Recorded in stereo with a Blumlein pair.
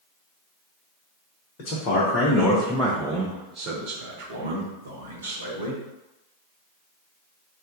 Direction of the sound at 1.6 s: 40° left.